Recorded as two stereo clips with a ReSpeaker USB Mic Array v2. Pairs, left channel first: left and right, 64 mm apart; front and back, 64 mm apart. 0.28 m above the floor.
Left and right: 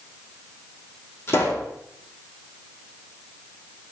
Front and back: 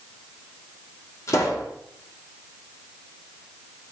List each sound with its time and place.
1.3 s a pop: 40° left, 4.5 m